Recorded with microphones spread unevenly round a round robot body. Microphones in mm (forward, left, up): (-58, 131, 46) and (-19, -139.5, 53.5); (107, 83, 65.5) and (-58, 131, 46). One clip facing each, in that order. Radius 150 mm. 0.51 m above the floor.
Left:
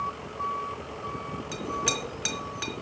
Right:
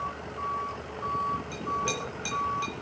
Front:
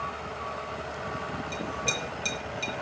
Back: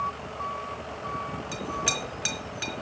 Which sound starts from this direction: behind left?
A clink, at 1.5 s.